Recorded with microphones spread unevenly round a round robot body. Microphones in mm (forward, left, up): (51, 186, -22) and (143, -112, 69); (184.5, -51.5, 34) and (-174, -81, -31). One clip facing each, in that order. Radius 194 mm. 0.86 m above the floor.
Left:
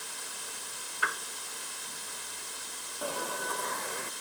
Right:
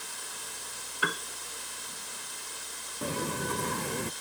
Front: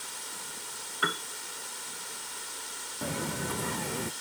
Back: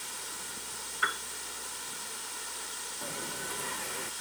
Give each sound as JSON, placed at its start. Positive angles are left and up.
{"t": 1.0, "sound": "a piano", "azimuth_deg": -35}
{"t": 3.0, "sound": "footsteps", "azimuth_deg": -15}